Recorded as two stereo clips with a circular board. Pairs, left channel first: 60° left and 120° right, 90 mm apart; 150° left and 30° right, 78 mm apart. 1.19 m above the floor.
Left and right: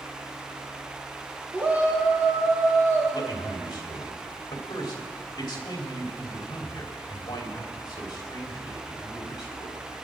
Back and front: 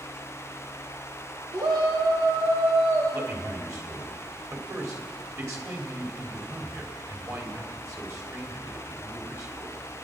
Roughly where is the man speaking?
Ahead.